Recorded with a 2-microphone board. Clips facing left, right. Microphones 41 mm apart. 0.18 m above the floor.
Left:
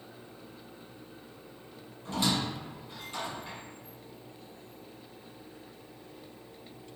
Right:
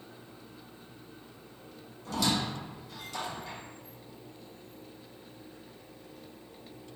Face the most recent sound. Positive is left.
turn(degrees=30)  # may be behind; listen again after turning